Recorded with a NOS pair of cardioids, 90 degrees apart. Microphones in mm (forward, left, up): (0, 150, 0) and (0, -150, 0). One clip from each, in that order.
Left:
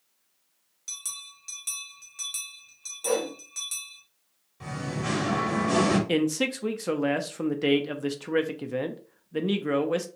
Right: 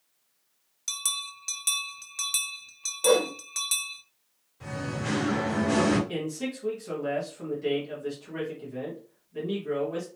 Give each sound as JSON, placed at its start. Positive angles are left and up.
{"t": 0.9, "sound": "a bell", "azimuth_deg": -35, "distance_m": 0.5}
{"t": 3.0, "sound": "a whoosh", "azimuth_deg": -50, "distance_m": 0.9}
{"t": 4.6, "sound": "singing", "azimuth_deg": 25, "distance_m": 1.6}
{"t": 6.1, "sound": "a man speaking", "azimuth_deg": 70, "distance_m": 0.7}